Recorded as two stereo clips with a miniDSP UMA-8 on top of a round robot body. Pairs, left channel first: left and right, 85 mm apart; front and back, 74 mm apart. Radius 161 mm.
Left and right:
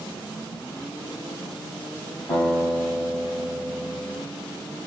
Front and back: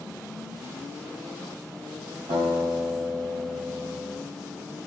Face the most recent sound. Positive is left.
turn(degrees=170)